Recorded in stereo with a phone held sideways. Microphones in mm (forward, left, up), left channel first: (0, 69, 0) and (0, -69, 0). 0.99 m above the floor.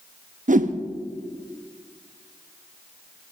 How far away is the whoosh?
About 0.6 m.